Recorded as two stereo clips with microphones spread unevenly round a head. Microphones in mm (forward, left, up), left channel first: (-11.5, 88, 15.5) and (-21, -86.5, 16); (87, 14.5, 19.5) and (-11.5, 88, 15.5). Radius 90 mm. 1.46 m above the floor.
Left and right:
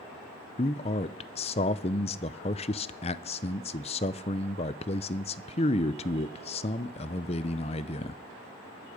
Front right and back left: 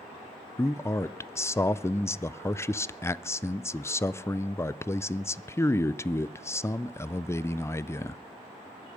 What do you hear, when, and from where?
0.6 s a man speaking: 30° left, 0.5 m